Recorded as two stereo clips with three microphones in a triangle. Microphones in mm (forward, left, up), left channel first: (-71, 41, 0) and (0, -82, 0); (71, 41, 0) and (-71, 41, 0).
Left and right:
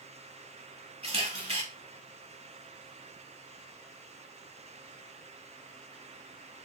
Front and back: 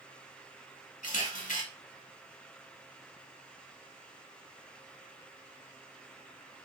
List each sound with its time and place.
1.0 s a camera shutter: 20° right, 1.1 m